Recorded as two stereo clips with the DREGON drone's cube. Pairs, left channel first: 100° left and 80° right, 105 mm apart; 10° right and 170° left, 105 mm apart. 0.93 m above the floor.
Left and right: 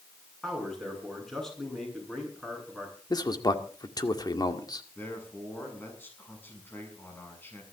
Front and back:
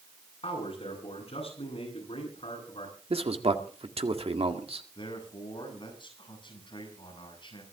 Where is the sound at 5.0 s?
30° left, 8 m.